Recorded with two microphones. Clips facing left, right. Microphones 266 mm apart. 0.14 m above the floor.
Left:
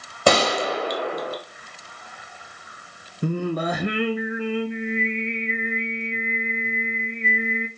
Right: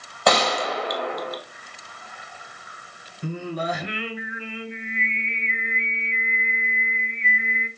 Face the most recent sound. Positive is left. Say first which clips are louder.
# left 5 dB
turn(degrees=55)  # may be behind; listen again after turning